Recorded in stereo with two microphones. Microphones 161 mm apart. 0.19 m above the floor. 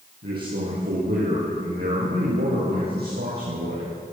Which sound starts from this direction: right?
A man speaking, at 0.2 s.